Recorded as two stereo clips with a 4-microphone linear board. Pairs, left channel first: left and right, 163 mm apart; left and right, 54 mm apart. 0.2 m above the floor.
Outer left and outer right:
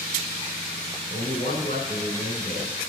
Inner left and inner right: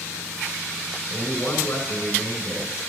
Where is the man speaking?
45° left (ahead or behind), 1.6 m.